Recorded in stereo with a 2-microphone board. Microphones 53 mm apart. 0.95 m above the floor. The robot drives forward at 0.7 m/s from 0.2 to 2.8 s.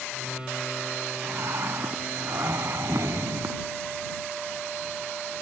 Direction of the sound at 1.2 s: 55° right (ahead or behind).